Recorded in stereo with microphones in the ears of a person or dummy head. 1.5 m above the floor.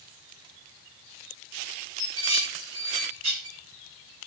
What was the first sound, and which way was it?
Dishes clattering, 85° right.